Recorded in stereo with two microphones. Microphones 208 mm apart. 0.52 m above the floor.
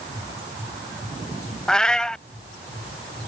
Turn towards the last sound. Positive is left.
turn(degrees=5)  # may be behind; listen again after turning